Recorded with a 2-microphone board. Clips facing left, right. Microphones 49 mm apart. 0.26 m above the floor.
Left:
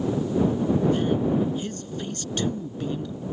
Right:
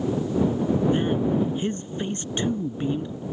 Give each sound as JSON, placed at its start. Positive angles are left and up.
{"t": 0.9, "sound": "a man speaking", "side_deg": -30}